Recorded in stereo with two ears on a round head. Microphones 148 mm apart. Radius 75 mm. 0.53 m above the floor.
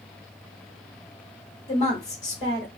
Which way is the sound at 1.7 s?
40° left (ahead or behind).